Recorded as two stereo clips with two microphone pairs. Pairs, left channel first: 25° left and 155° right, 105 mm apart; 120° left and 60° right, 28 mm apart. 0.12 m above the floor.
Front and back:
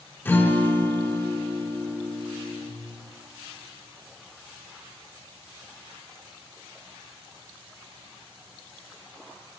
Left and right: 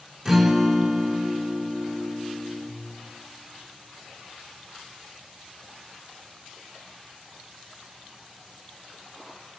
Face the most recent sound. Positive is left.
turn(degrees=20)